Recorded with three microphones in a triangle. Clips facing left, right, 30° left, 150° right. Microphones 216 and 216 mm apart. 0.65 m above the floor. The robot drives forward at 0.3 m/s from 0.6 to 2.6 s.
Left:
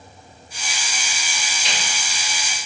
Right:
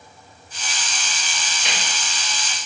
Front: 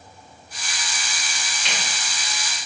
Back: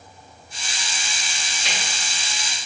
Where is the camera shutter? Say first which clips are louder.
Right 1 dB, even; 105° right, 1.3 m; by 1.8 s 110° right, 1.3 m.